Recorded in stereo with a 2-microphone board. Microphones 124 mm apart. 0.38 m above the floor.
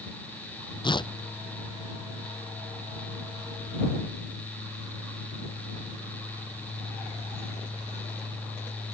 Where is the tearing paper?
40° left (ahead or behind).